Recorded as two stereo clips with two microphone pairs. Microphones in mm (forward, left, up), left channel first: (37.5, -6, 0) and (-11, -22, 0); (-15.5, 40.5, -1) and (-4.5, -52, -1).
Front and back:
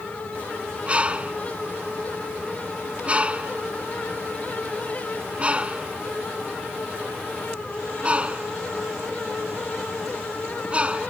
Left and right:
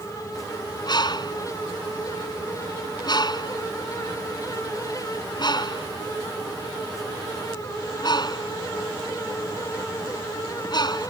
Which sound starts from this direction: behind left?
A bird, at 0.9 s.